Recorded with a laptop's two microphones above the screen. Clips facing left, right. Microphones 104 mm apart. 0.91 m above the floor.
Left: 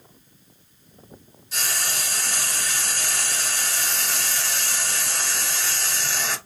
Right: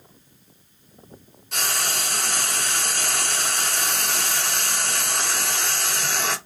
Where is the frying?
65° right (ahead or behind), 1.1 m.